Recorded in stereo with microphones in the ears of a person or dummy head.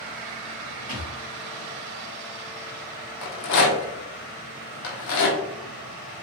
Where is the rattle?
60° left (ahead or behind), 0.7 m.